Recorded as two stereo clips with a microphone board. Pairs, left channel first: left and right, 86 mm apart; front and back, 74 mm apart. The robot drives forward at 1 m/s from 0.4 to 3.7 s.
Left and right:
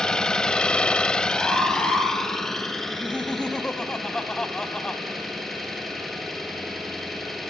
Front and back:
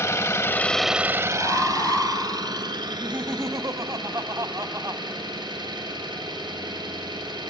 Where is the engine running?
15° left, 0.7 m; by 7.5 s straight behind, 3 m.